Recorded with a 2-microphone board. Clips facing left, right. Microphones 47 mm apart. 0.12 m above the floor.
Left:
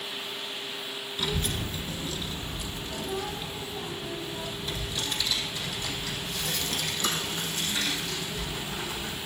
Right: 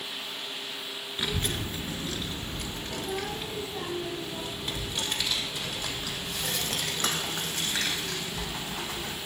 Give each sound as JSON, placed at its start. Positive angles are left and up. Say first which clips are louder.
{"t": 1.2, "sound": "a child speaking", "louder": "even", "side_deg": -25, "distance_m": 1.0}